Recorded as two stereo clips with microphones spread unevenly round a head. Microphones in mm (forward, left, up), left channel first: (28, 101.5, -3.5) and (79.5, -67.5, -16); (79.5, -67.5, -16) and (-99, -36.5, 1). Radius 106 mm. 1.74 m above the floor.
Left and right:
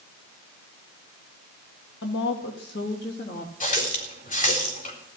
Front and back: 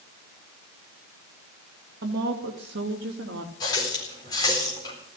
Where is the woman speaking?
135° left, 2 m; by 3.5 s 155° left, 2.5 m.